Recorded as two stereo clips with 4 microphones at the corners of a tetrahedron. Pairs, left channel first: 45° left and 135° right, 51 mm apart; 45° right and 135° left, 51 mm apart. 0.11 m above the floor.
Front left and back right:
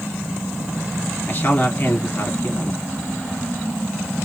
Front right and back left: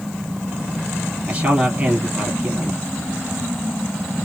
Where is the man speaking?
85° left, 1.8 m.